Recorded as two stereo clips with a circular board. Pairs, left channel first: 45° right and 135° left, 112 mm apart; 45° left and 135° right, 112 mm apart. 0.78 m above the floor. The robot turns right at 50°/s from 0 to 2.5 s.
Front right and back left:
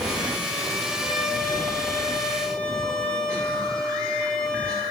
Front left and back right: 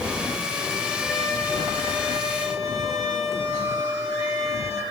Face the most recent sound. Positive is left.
turn(degrees=45)